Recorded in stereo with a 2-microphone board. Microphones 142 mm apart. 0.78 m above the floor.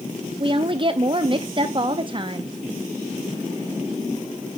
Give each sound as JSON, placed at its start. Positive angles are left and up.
{"t": 0.4, "sound": "a woman speaking", "side_deg": -35, "distance_m": 0.6}